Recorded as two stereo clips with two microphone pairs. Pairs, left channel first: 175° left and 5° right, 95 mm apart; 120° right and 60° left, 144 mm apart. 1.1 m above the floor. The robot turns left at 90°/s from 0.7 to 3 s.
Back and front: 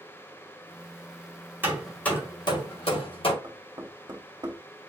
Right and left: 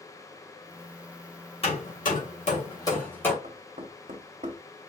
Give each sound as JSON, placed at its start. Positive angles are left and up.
{"t": 1.6, "sound": "hammering", "azimuth_deg": -75, "distance_m": 2.0}
{"t": 3.4, "sound": "knocking", "azimuth_deg": 35, "distance_m": 1.6}